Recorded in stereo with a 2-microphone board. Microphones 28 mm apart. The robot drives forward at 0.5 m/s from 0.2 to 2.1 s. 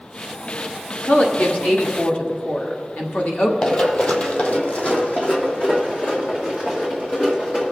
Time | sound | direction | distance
1.0 | a woman speaking | 75° left (ahead or behind) | 1.6 m
3.6 | running footsteps | 35° left (ahead or behind) | 1.2 m